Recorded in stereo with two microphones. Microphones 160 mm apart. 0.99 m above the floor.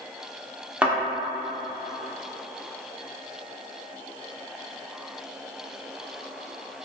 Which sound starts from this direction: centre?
A thud, at 0.8 s.